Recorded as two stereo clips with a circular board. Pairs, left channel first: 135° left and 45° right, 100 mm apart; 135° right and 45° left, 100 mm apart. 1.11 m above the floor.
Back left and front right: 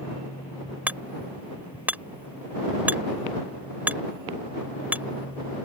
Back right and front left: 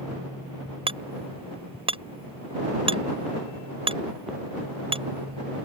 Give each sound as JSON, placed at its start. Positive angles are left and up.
{"t": 0.9, "sound": "hammering", "azimuth_deg": 30}